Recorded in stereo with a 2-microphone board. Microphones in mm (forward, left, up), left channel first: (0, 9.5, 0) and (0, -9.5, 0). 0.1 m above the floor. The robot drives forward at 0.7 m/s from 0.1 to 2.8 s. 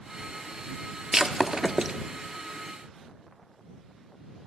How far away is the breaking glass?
About 1.2 m.